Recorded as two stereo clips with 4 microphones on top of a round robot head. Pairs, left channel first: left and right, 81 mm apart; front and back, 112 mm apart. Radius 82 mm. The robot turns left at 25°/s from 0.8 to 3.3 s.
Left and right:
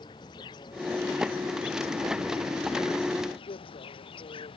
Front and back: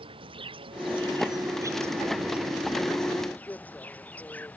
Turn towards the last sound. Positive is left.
turn(degrees=80)